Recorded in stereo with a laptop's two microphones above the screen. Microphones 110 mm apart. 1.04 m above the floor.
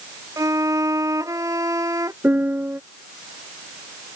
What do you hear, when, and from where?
0.4 s a violin: 30° right (ahead or behind)
2.2 s a piano: 20° right (ahead or behind)